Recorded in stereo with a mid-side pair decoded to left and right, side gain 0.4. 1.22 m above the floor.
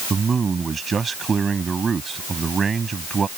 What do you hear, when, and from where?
0.1 s a man speaking: 40° right